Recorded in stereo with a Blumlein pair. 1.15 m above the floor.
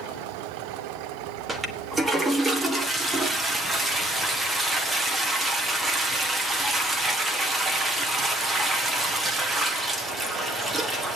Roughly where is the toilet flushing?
Ahead.